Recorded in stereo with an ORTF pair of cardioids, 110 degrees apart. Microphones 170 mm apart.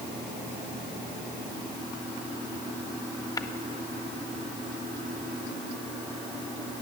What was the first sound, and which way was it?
Tapping, 20° left.